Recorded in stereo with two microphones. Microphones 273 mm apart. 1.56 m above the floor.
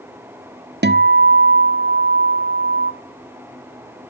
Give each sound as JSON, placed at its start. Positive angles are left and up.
{"t": 0.8, "sound": "a guitar", "side_deg": -40, "distance_m": 0.6}